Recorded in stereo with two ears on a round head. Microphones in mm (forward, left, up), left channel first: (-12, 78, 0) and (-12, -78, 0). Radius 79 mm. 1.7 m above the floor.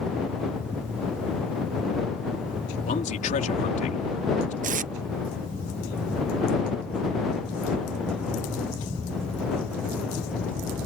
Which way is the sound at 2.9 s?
45° left (ahead or behind).